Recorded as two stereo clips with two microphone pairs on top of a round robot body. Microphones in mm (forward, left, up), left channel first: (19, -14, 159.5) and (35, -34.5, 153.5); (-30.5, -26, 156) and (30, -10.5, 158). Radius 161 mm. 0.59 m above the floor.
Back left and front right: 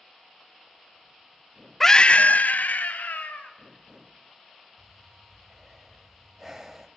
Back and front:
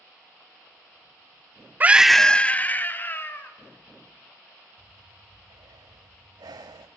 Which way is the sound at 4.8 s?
30° left.